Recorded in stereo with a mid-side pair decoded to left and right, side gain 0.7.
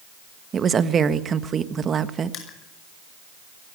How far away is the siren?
No siren in this recording.